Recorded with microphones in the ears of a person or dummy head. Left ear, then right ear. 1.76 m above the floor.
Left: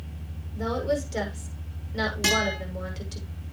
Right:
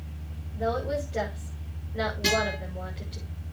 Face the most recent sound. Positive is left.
turn(degrees=50)  # may be behind; listen again after turning